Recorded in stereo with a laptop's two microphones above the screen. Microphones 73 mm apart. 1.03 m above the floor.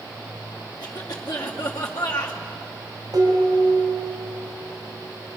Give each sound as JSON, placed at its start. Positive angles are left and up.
{"t": 0.8, "sound": "a cough", "side_deg": 60, "distance_m": 2.5}
{"t": 3.1, "sound": "dishes clattering", "side_deg": -60, "distance_m": 4.0}